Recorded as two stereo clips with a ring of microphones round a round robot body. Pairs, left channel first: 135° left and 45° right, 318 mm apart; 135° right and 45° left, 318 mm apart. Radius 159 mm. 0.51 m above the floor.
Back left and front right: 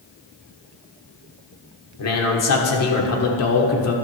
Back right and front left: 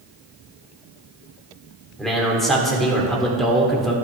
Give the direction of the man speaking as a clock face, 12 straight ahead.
7 o'clock.